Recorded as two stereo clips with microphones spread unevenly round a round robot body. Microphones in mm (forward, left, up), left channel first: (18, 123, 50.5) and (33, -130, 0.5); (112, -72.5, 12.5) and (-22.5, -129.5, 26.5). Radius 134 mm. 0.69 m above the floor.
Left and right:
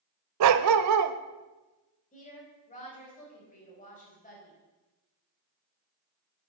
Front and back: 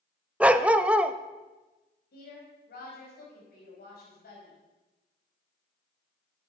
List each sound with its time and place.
0.4 s a dog barking: 85° right, 0.6 m
2.1 s a woman speaking: 30° left, 4.5 m